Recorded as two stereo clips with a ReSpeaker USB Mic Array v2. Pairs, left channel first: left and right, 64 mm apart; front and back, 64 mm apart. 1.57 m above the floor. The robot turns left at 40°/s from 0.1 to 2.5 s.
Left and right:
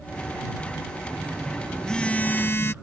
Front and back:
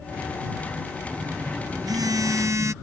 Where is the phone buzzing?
160° right; by 2.7 s 145° left.